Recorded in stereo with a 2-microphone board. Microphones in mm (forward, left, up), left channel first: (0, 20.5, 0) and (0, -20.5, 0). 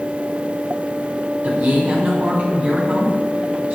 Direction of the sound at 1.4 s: 40° right (ahead or behind).